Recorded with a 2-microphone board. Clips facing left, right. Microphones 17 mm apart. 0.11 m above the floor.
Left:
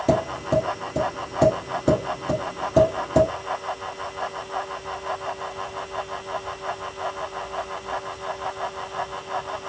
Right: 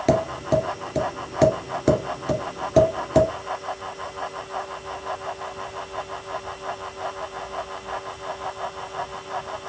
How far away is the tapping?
About 1.6 m.